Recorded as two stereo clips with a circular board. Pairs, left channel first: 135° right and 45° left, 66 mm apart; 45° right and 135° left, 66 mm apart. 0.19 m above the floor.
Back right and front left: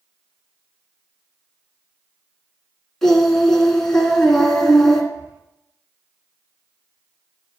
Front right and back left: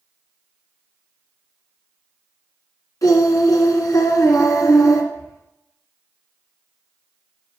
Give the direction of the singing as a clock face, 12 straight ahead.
2 o'clock.